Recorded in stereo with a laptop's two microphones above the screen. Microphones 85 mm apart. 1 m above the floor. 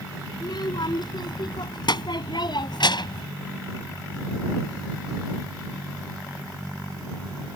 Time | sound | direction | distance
0.3 | a child speaking | 60° left (ahead or behind) | ?